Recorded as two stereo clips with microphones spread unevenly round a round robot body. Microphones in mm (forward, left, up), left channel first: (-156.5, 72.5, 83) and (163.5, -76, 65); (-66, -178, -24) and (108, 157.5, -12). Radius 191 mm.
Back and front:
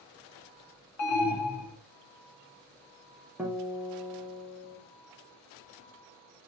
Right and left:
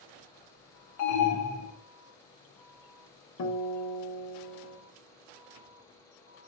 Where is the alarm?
165° right, 0.9 m.